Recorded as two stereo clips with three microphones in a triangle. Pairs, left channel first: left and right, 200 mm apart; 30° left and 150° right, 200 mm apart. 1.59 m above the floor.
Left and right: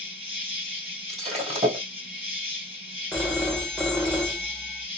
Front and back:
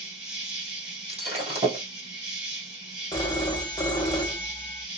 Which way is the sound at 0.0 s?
65° right.